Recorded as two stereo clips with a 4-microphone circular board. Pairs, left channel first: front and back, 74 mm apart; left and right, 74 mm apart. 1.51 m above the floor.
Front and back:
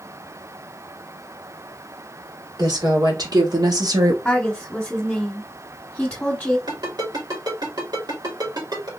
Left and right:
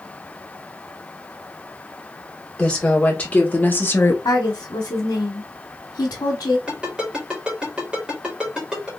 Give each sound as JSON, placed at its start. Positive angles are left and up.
{"t": 2.6, "sound": "a woman speaking", "azimuth_deg": 165, "distance_m": 1.9}
{"t": 4.2, "sound": "a woman speaking", "azimuth_deg": 75, "distance_m": 1.2}
{"t": 6.7, "sound": "a ringtone", "azimuth_deg": -165, "distance_m": 2.5}